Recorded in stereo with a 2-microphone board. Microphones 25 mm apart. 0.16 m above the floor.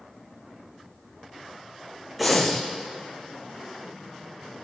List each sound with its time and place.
2.2 s breathing: centre (ahead or behind), 2 m